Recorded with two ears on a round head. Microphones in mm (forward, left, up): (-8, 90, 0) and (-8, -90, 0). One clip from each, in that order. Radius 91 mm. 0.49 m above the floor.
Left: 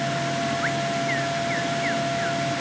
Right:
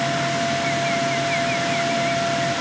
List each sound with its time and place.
Only background noise.